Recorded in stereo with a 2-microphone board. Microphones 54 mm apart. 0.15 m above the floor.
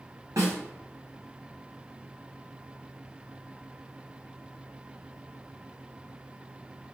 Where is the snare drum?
80° right, 1.8 m.